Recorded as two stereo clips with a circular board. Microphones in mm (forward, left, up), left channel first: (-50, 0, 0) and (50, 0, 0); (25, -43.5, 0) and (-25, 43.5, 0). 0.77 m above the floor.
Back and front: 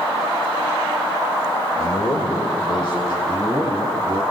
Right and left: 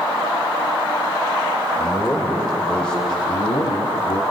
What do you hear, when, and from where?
1.8 s a man speaking: 125° right, 2.5 m; by 3.1 s 145° right, 3 m
3.2 s a man speaking: 60° right, 1.9 m